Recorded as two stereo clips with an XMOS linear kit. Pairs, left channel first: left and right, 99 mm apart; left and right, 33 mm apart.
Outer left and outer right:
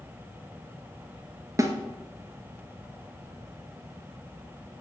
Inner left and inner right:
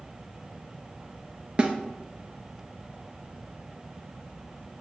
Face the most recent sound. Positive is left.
turn(degrees=-30)  # may be behind; listen again after turning